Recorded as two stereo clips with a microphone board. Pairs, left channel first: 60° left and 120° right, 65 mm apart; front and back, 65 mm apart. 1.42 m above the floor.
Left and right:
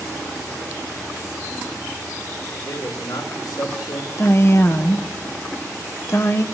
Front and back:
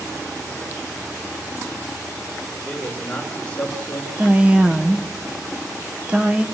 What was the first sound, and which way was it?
A man speaking, 70° left.